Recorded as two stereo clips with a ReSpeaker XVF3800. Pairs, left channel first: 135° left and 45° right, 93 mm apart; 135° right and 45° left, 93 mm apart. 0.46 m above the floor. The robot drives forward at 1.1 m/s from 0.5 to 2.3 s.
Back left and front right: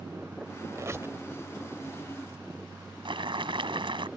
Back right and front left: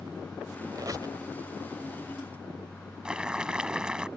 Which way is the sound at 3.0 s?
35° right.